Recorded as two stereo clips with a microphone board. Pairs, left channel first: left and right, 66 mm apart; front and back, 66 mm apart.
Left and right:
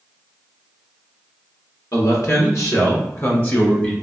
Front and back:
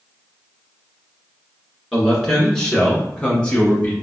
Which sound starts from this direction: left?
A man speaking, at 1.9 s.